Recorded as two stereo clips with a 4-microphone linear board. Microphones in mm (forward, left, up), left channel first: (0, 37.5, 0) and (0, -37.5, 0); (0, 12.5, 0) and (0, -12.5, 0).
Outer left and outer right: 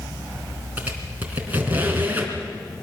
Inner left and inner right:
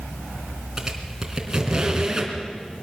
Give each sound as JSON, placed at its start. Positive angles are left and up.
{"t": 0.8, "sound": "a squeak", "side_deg": -25, "distance_m": 3.5}